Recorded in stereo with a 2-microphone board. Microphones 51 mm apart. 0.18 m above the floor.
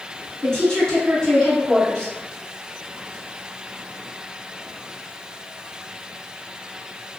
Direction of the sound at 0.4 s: 15° left (ahead or behind).